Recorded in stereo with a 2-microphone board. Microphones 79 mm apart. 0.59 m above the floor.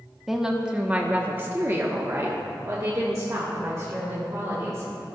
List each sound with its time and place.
0.3 s a woman speaking: 5° right (ahead or behind), 1.0 m; by 4.9 s 40° right (ahead or behind), 2.5 m